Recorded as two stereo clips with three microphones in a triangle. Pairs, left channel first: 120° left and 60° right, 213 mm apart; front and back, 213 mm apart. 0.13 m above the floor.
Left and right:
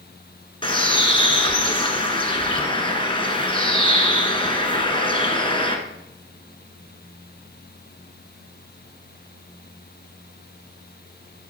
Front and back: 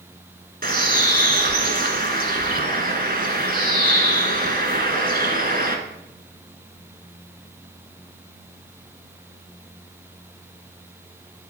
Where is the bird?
175° left, 1.3 m.